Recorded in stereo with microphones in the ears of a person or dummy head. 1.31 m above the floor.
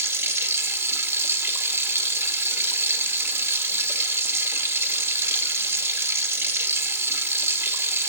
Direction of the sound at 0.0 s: 20° right (ahead or behind).